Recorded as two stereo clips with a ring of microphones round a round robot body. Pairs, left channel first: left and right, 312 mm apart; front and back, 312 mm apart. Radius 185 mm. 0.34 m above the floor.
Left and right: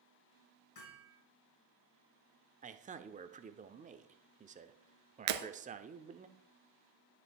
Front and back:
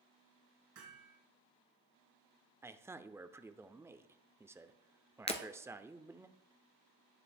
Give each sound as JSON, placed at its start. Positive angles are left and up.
{"t": 0.8, "sound": "hammering", "azimuth_deg": 130, "distance_m": 4.0}
{"t": 2.6, "sound": "a man speaking", "azimuth_deg": -110, "distance_m": 0.8}
{"t": 5.3, "sound": "breaking glass", "azimuth_deg": -75, "distance_m": 1.3}